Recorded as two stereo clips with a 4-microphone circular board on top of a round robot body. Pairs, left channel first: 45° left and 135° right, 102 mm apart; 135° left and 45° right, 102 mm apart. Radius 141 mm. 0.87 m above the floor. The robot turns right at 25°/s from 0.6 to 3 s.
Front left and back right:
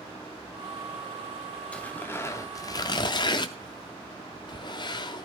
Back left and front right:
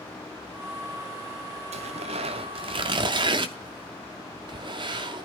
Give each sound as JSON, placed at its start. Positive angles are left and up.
{"t": 1.7, "sound": "tearing paper", "azimuth_deg": -35, "distance_m": 0.5}